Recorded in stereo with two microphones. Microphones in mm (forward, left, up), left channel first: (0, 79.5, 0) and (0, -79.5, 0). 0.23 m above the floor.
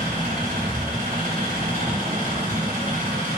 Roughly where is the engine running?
Right.